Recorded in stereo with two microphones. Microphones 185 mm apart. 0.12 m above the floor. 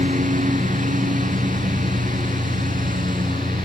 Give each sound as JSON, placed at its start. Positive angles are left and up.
{"t": 0.0, "sound": "a lawn mower", "side_deg": -45}